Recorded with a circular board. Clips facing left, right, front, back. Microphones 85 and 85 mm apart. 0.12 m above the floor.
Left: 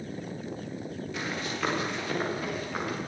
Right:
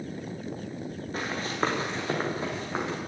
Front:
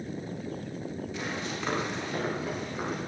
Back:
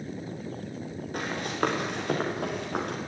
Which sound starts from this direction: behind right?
Running footsteps, at 1.1 s.